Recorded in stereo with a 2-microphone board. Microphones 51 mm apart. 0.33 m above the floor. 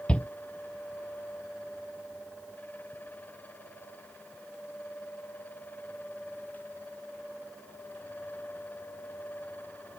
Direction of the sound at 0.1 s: 20° left (ahead or behind).